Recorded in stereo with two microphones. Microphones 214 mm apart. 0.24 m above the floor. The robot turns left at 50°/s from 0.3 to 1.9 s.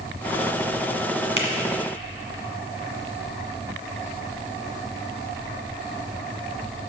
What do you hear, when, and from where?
1.4 s a finger snap: 60° right (ahead or behind), 1.7 m